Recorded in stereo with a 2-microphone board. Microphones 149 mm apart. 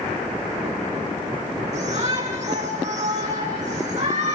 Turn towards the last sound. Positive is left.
turn(degrees=-50)  # may be behind; listen again after turning